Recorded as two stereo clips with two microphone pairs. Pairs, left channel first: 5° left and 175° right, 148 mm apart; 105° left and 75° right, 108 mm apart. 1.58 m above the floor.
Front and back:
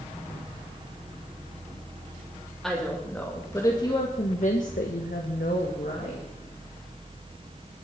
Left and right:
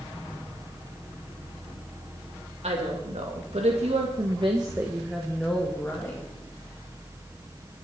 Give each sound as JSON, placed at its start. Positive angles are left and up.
{"t": 2.6, "sound": "a woman speaking", "azimuth_deg": -85, "distance_m": 3.0}